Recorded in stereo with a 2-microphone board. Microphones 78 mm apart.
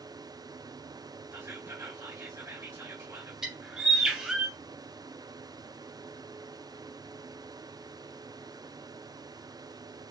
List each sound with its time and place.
1.3 s whispering: 35° right (ahead or behind), 1.6 m
3.4 s a bird: 10° right (ahead or behind), 1.8 m